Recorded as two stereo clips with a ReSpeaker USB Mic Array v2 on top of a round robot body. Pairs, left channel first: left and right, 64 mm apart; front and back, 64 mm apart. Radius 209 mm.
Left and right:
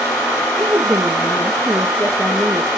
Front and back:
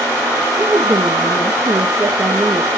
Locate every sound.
0.6 s a woman speaking: 160° right, 1.6 m